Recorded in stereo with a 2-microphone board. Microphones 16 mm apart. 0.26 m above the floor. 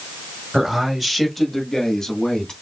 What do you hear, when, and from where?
0.5 s a man speaking: 20° right (ahead or behind), 1.5 m; by 2.5 s 35° left (ahead or behind), 2 m